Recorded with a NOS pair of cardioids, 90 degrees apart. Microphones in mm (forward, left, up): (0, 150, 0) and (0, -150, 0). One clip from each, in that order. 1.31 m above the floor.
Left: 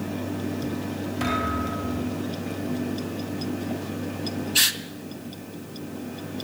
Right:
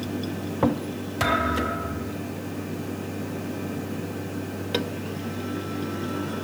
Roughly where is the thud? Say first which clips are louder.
Right 4 dB; ahead right.